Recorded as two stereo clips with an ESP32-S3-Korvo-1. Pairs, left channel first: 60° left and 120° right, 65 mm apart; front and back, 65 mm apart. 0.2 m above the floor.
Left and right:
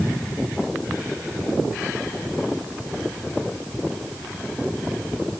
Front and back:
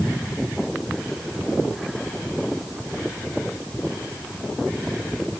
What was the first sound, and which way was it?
Only background noise.